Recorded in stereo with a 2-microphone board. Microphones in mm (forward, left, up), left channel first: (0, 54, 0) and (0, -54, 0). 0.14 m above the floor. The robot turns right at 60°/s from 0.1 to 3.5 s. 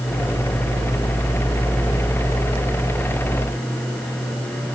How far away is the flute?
I don't hear a flute.